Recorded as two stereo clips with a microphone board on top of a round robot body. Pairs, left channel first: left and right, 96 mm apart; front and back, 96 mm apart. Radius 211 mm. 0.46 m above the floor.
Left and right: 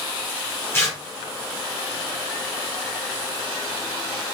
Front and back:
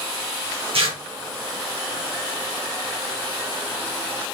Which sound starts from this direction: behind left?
Tearing paper, at 0.7 s.